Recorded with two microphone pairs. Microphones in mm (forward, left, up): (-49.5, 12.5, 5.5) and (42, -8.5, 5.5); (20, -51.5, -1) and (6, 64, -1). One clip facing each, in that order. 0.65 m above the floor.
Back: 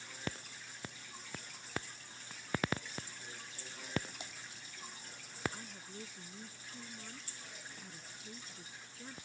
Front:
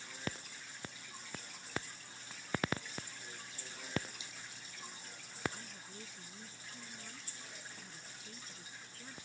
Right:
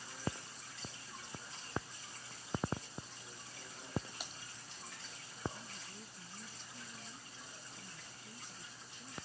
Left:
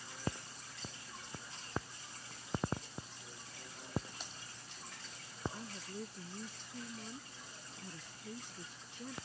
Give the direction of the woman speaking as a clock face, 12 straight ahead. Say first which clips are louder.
Back 2 dB, left 6 dB; 9 o'clock.